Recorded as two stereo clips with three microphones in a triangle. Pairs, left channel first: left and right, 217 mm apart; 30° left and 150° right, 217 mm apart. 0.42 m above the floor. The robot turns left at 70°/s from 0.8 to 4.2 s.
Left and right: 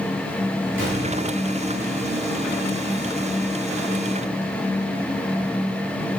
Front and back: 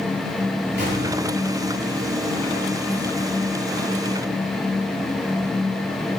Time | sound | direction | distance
0.8 | a gunshot | 115° right | 6.5 m